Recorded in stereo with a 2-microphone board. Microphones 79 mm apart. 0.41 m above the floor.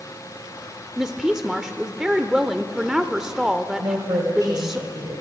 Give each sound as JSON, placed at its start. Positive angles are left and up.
{"t": 1.0, "sound": "a woman speaking", "side_deg": -5, "distance_m": 0.8}
{"t": 3.8, "sound": "a woman speaking", "side_deg": -55, "distance_m": 2.0}